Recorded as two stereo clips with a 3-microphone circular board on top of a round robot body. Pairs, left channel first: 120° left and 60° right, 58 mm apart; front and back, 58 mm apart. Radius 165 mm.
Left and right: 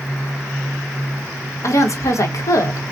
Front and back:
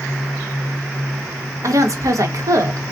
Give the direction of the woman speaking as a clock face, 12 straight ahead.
7 o'clock.